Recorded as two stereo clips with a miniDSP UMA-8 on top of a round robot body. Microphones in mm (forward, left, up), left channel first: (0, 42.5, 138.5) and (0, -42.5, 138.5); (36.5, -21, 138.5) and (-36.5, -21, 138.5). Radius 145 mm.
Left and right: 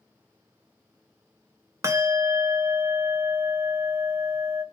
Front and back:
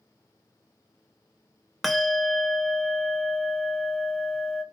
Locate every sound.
1.8 s a bell: 90° right, 1.0 m